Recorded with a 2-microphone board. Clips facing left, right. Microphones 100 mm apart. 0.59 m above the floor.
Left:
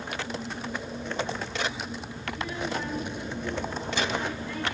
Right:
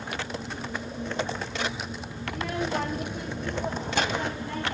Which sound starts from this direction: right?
A child speaking, at 2.3 s.